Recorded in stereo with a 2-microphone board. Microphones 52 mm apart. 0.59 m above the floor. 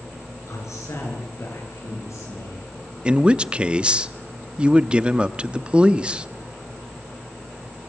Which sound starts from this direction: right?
A man speaking, at 3.0 s.